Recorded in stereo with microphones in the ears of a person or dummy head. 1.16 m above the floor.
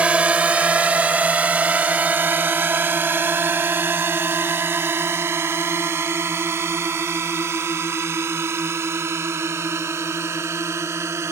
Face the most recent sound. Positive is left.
turn(degrees=-15)  # may be behind; listen again after turning